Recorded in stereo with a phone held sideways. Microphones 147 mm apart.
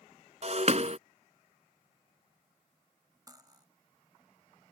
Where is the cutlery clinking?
25° right (ahead or behind).